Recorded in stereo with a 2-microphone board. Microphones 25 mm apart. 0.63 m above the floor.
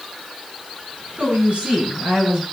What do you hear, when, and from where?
1.2 s a woman speaking: 45° right (ahead or behind), 8 m; by 2.4 s 35° right (ahead or behind), 9.5 m